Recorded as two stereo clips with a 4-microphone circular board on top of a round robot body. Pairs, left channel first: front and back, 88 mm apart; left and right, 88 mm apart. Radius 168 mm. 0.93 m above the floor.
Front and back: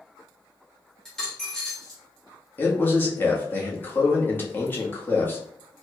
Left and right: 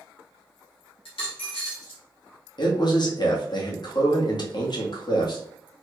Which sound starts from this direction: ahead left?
A man speaking, at 2.6 s.